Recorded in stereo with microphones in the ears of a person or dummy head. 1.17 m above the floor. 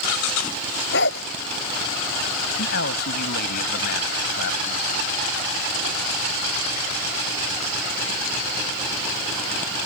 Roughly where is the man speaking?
Left.